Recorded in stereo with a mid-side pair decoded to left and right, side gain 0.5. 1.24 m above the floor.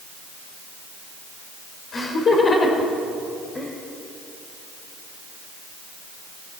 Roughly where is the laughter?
Ahead left.